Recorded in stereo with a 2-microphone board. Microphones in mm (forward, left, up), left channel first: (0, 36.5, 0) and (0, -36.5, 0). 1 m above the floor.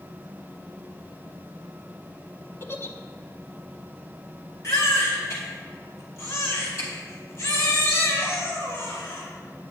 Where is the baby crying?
45° left (ahead or behind), 2.5 m.